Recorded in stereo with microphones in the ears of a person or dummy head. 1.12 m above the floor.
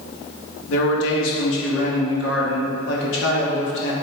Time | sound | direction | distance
0.7 | a man speaking | 75° left (ahead or behind) | 2.5 m